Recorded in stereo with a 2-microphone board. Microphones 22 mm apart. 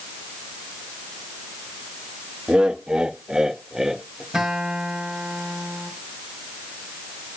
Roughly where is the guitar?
Right.